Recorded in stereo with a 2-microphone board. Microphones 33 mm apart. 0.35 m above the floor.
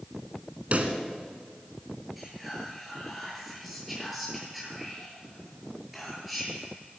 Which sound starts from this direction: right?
A pop, at 0.7 s.